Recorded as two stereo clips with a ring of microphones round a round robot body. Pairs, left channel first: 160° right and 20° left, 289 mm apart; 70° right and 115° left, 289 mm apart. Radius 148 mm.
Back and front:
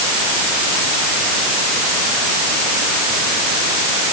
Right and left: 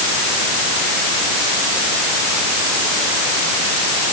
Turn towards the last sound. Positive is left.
No sound to turn to.